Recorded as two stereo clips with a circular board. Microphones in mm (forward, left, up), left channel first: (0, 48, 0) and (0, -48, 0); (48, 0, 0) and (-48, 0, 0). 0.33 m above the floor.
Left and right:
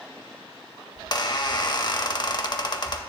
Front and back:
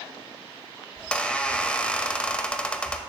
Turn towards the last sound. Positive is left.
turn(degrees=75)